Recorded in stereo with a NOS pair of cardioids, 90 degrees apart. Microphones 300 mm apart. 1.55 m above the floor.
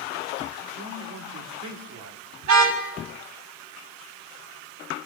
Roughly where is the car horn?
Right.